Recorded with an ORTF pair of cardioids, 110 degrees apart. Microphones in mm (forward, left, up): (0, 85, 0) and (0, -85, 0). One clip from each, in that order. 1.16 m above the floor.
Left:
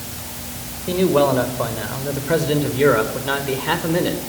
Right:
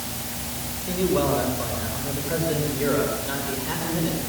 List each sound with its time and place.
0.9 s a man speaking: 50° left, 5 m; by 4.2 s 70° left, 4 m